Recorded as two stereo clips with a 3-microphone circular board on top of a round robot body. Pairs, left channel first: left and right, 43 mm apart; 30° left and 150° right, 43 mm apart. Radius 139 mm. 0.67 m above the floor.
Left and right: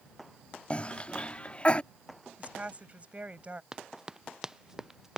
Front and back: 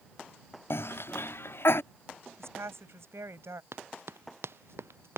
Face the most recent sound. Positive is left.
turn(degrees=-170)